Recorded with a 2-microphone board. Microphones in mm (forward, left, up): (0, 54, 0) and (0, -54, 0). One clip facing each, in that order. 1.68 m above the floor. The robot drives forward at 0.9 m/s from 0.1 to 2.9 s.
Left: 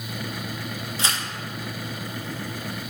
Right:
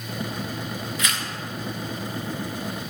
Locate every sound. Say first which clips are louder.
1.0 s tearing paper: left 2 dB; 30° left (ahead or behind), 1.2 m; by 1.2 s 35° left (ahead or behind), 1.0 m